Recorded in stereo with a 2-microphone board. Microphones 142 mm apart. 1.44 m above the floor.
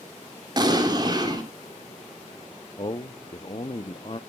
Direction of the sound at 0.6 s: 30° right (ahead or behind).